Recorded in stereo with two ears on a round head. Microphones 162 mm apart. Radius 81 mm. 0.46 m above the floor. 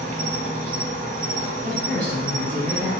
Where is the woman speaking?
25° right (ahead or behind), 2.5 m.